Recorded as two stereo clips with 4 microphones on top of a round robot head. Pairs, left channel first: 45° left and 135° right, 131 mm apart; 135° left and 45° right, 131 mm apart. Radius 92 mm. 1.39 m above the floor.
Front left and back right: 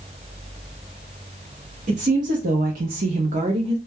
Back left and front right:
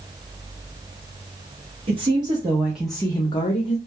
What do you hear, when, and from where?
1.9 s a woman speaking: 95° right, 0.9 m; by 3.8 s 165° left, 0.7 m